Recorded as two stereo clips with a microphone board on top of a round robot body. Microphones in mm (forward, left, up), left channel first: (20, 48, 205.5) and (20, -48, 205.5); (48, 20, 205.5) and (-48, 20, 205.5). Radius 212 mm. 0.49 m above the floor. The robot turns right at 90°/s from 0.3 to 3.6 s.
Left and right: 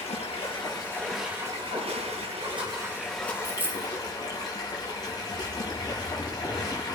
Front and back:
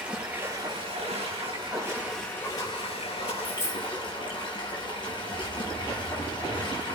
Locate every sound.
0.0 s running water: 105° left, 5 m; by 7.0 s 40° left, 5 m
3.4 s a dropped coin: 75° right, 3 m; by 3.9 s 60° right, 3 m